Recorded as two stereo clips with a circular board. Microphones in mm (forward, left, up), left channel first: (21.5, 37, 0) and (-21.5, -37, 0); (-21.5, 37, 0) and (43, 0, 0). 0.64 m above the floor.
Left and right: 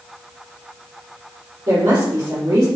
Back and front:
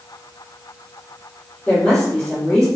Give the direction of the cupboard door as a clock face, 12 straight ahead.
I don't hear a cupboard door.